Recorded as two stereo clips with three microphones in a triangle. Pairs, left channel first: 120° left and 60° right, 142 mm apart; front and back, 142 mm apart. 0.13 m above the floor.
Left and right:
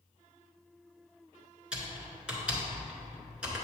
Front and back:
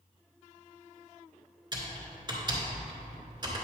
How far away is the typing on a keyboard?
About 2 m.